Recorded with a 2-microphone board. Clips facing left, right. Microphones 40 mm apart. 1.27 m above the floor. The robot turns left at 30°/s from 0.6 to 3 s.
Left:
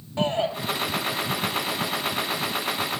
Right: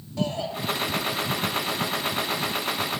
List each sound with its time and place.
0.2 s a shout: 35° left (ahead or behind), 7 m